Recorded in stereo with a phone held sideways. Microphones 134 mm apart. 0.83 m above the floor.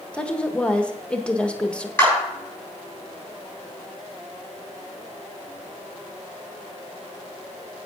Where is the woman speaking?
10° left (ahead or behind), 1.0 m.